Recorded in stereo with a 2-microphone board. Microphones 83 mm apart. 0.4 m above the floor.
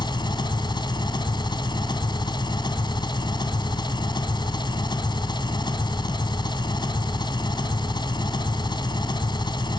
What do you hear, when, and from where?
0.0 s an engine running: 70° left (ahead or behind), 2 m